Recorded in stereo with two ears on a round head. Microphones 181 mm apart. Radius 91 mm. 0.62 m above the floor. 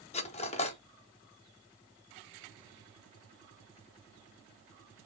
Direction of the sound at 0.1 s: 30° left (ahead or behind).